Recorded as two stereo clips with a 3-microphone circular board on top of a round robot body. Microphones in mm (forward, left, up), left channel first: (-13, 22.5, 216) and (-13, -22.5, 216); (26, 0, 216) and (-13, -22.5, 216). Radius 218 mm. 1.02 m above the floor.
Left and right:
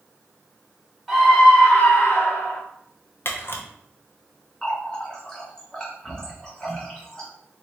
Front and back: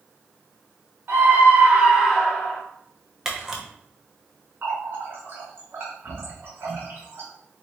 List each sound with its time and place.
1.1 s a scream: 175° left, 1.5 m; by 2.6 s 95° left, 1.2 m
3.2 s a camera shutter: 130° left, 0.6 m
4.6 s a running tap: 165° left, 0.5 m